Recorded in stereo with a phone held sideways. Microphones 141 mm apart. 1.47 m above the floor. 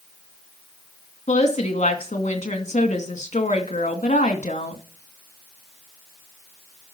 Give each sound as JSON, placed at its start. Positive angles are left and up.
{"t": 1.3, "sound": "a woman speaking", "side_deg": 50, "distance_m": 2.5}